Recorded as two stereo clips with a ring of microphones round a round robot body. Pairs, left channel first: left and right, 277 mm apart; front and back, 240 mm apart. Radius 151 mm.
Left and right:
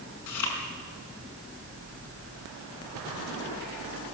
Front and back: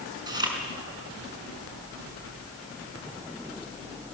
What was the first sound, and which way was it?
Chewing, 105° left.